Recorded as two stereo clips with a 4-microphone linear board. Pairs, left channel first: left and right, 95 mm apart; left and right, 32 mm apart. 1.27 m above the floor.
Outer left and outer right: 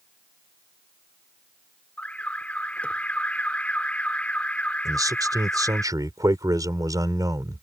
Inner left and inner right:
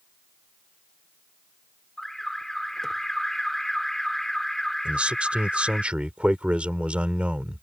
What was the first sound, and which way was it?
An alarm, 15° left (ahead or behind).